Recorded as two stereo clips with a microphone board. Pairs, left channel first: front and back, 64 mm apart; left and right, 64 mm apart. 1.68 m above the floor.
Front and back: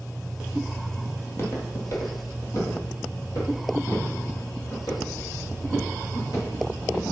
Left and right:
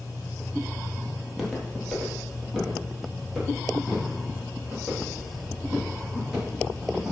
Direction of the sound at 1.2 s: 5° right.